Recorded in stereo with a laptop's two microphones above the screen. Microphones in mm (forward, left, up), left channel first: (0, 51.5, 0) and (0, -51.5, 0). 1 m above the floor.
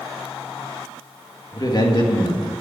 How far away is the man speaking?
About 1.8 m.